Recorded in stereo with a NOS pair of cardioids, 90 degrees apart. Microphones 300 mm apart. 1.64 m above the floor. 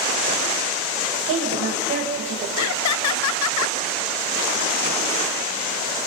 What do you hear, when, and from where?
1.3 s a woman speaking: 45° right, 8.5 m
2.6 s laughter: 65° left, 0.5 m